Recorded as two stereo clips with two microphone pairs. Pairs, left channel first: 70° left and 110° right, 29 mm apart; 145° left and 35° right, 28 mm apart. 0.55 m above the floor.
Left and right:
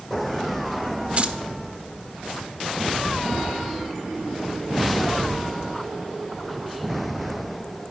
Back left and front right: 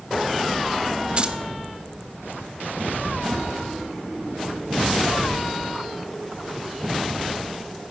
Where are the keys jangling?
80° right, 1.1 m.